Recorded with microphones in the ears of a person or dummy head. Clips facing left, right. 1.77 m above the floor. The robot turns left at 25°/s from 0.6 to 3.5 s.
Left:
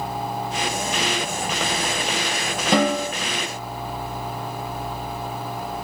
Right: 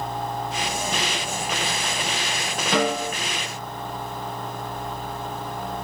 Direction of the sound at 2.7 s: 55° left (ahead or behind).